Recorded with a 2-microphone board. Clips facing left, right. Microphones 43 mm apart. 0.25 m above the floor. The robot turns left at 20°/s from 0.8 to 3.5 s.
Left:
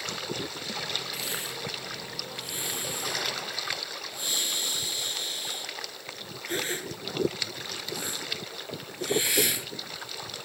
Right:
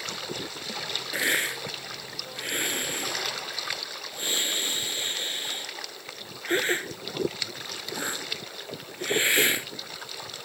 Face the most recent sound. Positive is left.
turn(degrees=-35)  # may be behind; listen again after turning